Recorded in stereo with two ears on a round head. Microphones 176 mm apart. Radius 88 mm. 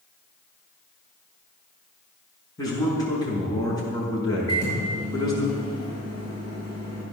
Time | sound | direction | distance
2.6 | a man speaking | 20° left (ahead or behind) | 5.5 m
4.5 | a microwave | 25° left (ahead or behind) | 7.5 m